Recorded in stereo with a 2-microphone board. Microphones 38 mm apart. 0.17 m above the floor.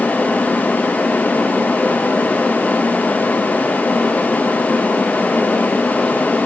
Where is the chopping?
I don't hear chopping.